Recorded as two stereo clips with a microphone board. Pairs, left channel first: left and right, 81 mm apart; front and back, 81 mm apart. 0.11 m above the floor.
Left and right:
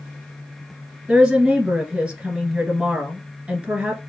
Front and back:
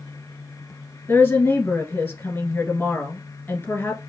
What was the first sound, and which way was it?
A woman speaking, 30° right.